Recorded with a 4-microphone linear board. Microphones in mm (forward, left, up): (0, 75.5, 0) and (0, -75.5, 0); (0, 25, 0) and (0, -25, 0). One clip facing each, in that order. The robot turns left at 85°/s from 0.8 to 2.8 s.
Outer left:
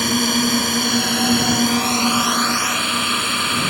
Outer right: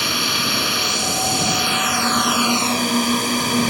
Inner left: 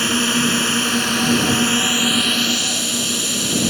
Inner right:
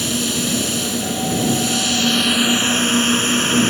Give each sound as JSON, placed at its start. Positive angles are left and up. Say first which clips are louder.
{"t": 0.0, "sound": "a drone", "louder": "outer left 7 dB, inner left 4 dB", "azimuth_deg": 125}